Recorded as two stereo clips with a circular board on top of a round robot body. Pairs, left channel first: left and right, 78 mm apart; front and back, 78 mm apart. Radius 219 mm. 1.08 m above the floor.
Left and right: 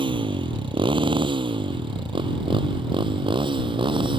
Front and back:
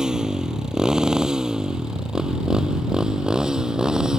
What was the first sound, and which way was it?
A motorcycle, 95° right.